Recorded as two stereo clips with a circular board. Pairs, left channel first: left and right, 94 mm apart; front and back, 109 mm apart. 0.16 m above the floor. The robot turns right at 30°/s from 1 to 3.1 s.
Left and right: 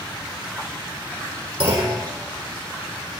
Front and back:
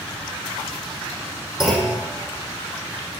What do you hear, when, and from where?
1.6 s a clunk: 95° right, 4.5 m; by 2.0 s 80° right, 4.5 m